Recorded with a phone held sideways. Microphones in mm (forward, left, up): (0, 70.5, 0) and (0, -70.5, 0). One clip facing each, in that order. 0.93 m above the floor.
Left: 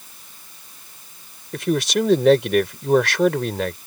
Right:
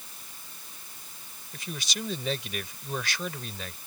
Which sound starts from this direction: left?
A man speaking, at 1.5 s.